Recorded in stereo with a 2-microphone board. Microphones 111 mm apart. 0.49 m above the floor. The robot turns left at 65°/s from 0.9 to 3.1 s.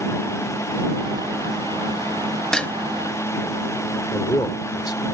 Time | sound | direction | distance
2.5 | dishes clattering | 5° left (ahead or behind) | ?
4.1 | a man speaking | 40° left (ahead or behind) | ?